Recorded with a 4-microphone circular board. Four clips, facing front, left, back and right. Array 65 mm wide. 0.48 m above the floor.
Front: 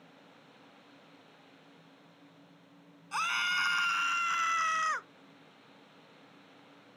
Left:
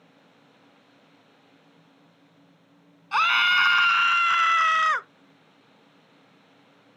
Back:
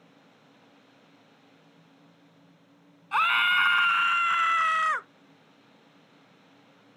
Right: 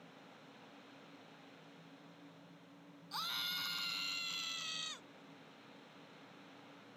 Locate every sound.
3.1 s a scream: 120° left; by 5.1 s 110° left